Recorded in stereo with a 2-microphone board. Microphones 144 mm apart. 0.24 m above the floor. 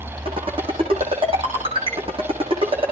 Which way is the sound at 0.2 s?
40° right (ahead or behind).